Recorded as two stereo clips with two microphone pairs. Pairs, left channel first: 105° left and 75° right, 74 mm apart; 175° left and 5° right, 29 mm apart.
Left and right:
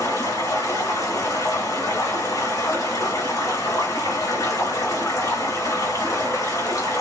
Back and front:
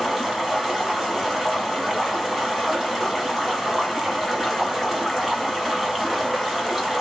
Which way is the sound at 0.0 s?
85° left.